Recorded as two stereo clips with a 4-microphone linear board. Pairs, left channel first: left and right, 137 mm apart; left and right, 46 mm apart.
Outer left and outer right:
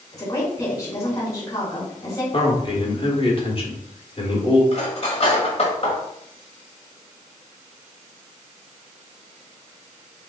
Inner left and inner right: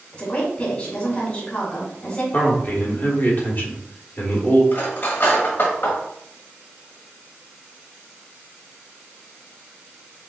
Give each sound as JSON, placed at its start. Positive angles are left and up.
{"t": 0.1, "sound": "a woman speaking", "side_deg": 25, "distance_m": 2.5}
{"t": 2.3, "sound": "a man speaking", "side_deg": 40, "distance_m": 1.3}
{"t": 4.7, "sound": "cutlery clinking", "side_deg": 50, "distance_m": 1.7}